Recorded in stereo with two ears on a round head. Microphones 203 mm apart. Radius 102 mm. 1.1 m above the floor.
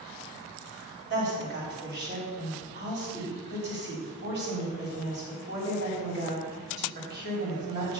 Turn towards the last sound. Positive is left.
turn(degrees=-50)  # may be behind; listen again after turning